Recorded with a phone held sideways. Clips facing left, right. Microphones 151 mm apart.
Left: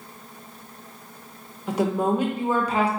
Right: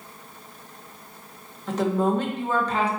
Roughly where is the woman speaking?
Centre.